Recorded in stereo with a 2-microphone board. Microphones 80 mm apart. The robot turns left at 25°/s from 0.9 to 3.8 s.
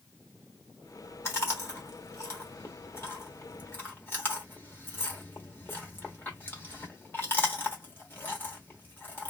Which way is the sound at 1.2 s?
35° left (ahead or behind).